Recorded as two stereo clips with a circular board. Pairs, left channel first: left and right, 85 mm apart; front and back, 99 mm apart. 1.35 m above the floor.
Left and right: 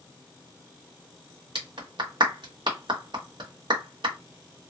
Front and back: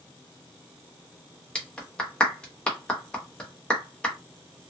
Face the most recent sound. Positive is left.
turn(degrees=-80)